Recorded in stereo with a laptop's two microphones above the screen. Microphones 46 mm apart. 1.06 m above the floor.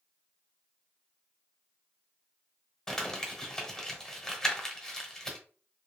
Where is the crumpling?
10° left (ahead or behind), 0.9 m.